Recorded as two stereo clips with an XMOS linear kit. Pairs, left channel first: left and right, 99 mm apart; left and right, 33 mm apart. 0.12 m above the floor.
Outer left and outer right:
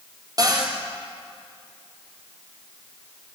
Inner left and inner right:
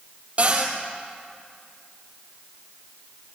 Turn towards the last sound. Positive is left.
turn(degrees=-40)  # may be behind; listen again after turning